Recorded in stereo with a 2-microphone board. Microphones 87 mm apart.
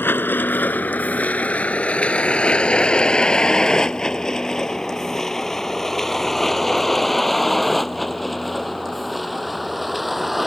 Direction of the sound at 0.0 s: 25° left (ahead or behind).